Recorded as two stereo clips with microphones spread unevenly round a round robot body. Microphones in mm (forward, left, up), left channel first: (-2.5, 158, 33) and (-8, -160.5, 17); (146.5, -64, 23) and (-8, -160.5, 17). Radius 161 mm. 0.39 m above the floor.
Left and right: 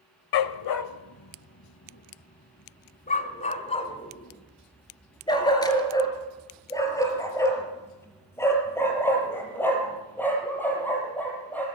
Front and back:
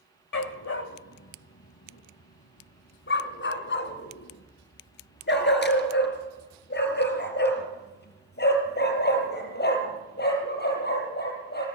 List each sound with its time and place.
0.3 s a dog barking: 65° left, 0.9 m; by 11.7 s 5° left, 6.5 m